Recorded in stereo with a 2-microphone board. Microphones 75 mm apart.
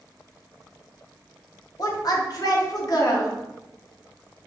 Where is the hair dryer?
No hair dryer in this recording.